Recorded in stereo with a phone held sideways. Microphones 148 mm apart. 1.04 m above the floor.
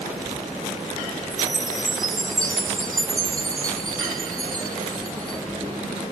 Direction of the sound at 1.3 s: 70° right (ahead or behind).